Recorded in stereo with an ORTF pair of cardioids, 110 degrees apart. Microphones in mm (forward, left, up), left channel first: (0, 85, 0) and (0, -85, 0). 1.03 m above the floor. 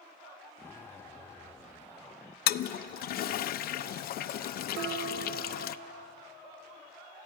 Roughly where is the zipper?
Ahead.